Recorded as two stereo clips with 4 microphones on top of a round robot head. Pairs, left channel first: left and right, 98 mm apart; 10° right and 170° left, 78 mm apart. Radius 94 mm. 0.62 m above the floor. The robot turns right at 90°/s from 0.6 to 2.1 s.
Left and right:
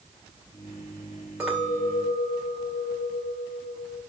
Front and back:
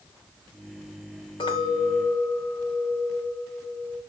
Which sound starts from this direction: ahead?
A clink, at 1.4 s.